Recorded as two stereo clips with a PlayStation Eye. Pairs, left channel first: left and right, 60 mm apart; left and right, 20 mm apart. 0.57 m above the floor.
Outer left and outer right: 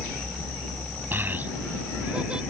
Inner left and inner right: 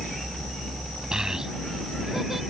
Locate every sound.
1.1 s a child speaking: 35° right (ahead or behind); by 2.4 s 15° right (ahead or behind)